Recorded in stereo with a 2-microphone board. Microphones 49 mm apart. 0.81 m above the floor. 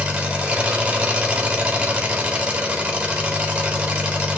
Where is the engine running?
25° right (ahead or behind), 1.9 m.